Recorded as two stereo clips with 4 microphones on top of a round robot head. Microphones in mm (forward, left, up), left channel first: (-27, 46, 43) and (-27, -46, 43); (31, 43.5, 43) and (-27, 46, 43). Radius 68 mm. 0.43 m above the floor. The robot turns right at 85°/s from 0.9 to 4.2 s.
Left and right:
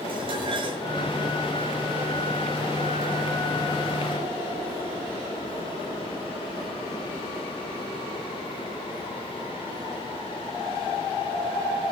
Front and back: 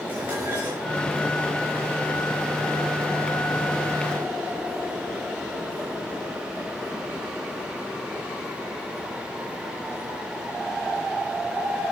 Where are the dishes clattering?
115° right, 5.5 m.